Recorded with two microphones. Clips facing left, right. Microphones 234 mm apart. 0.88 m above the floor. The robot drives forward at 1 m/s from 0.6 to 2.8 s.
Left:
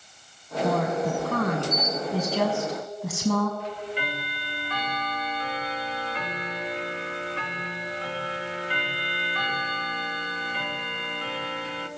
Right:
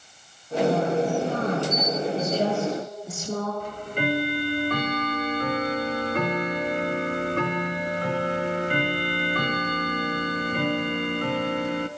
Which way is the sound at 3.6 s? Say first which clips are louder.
Right 4 dB; 50° right (ahead or behind).